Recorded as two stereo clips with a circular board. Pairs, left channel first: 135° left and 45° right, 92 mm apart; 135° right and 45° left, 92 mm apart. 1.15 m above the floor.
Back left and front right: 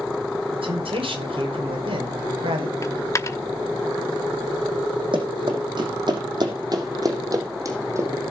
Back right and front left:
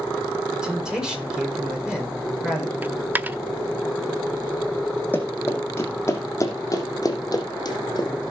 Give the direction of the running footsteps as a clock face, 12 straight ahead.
2 o'clock.